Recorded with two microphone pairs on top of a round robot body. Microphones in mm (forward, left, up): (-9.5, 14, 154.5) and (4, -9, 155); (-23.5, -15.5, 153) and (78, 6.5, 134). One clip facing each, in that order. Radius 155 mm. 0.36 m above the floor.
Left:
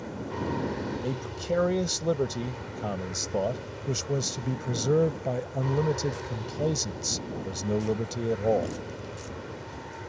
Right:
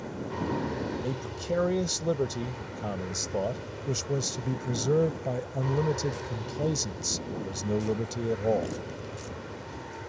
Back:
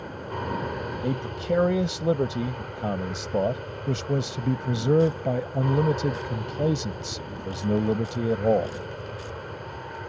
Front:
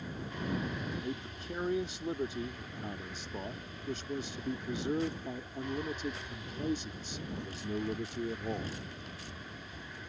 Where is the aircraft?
150° right.